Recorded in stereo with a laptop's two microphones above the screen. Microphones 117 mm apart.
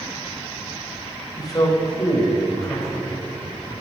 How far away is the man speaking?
About 4 m.